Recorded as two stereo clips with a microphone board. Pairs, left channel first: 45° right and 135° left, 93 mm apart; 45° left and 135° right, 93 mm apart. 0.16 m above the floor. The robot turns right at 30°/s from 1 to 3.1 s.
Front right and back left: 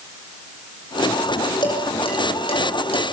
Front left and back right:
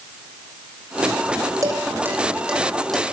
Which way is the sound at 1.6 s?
80° right.